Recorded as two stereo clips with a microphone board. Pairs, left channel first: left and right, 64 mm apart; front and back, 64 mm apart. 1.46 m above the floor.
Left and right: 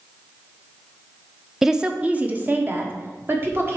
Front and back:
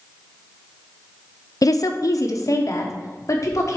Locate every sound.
1.6 s a woman speaking: 5° right, 0.6 m; by 3.8 s 40° right, 1.7 m